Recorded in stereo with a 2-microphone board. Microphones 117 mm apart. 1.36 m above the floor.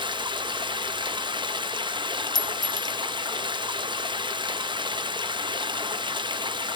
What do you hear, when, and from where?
0.0 s running water: 40° right (ahead or behind), 0.7 m
2.4 s a clink: 35° left (ahead or behind), 0.7 m